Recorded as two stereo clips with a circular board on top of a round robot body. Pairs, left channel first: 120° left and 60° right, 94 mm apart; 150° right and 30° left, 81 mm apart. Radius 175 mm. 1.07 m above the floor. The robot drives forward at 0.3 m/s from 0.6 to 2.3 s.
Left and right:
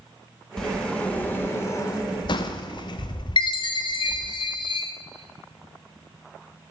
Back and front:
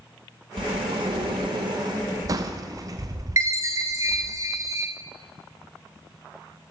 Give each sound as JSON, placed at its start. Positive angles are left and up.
{"t": 0.6, "sound": "a sliding door", "azimuth_deg": 35, "distance_m": 0.7}
{"t": 3.4, "sound": "a chime", "azimuth_deg": 85, "distance_m": 1.1}